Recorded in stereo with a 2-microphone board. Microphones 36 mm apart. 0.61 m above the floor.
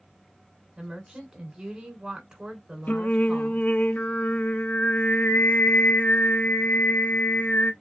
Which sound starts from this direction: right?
A woman speaking, at 0.8 s.